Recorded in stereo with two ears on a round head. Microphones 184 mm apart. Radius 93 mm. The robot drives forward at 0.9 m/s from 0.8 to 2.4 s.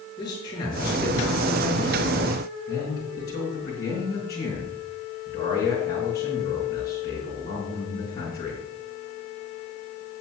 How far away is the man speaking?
About 8.5 m.